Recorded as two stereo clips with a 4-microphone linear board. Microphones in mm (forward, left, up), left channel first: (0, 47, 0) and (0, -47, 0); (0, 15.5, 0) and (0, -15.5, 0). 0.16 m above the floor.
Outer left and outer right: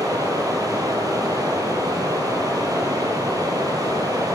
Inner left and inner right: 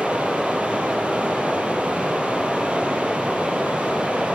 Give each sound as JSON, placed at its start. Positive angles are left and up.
{"t": 0.0, "sound": "running water", "side_deg": -40, "distance_m": 4.0}